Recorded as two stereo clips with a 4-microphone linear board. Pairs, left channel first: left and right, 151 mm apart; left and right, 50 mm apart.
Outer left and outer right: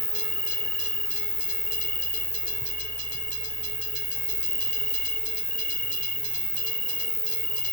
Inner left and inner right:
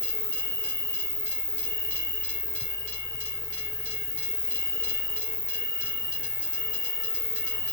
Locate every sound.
0.0 s an insect: 85° left, 3 m